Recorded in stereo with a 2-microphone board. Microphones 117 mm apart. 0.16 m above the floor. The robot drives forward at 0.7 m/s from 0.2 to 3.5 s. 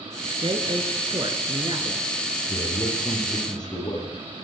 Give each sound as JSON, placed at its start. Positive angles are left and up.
{"t": 0.4, "sound": "a woman speaking", "side_deg": -45, "distance_m": 2.5}
{"t": 2.5, "sound": "a man speaking", "side_deg": 35, "distance_m": 8.5}